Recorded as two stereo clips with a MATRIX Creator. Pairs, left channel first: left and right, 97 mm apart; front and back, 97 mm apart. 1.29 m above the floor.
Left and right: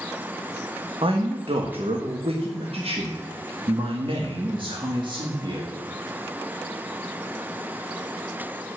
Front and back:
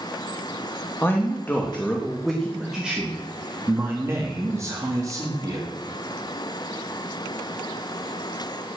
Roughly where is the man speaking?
Ahead right.